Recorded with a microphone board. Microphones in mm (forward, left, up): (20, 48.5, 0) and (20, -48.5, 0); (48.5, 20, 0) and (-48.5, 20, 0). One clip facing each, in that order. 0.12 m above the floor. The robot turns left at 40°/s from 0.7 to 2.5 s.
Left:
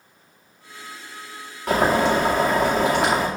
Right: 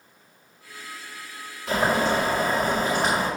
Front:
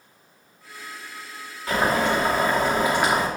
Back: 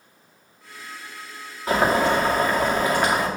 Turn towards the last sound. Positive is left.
turn(degrees=80)